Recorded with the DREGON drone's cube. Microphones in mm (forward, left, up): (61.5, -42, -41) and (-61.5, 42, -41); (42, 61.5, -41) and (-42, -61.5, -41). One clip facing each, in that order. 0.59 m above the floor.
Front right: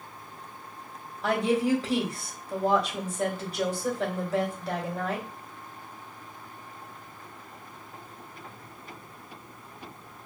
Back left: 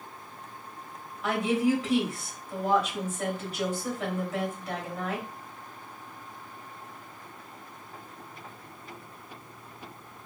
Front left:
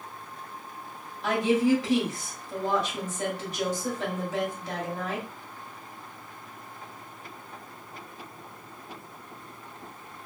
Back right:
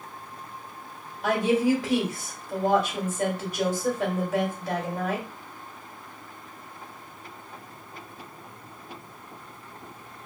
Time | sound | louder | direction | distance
1.2 | a woman speaking | front right 1 dB, back right 1 dB | 90° right | 2 m